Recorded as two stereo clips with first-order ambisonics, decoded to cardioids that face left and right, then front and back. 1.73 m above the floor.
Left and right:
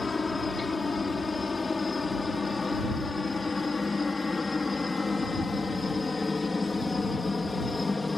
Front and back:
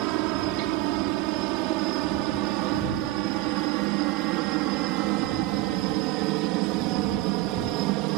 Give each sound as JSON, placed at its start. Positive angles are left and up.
{"t": 0.0, "sound": "a helicopter", "azimuth_deg": 165}